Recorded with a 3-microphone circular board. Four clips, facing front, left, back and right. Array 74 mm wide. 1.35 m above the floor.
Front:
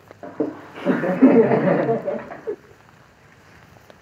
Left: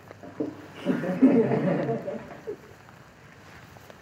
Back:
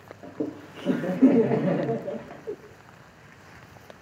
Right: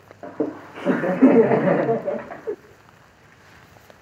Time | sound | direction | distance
0.2 | laughter | 55° right | 0.6 m